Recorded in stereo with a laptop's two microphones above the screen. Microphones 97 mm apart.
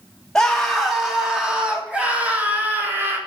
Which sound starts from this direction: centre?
A scream, at 0.3 s.